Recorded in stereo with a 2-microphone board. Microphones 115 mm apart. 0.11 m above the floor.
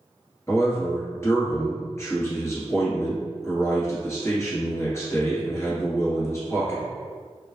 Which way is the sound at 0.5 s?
25° left (ahead or behind).